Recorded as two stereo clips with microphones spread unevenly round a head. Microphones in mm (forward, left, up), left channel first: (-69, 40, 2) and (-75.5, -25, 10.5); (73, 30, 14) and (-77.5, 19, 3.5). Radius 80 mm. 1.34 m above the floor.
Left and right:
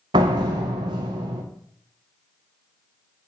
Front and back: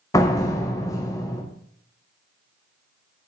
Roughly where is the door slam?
Ahead right.